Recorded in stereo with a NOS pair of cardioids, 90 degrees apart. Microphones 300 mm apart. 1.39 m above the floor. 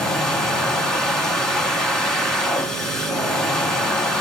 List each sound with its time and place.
0.0 s a machine running: straight ahead, 1.8 m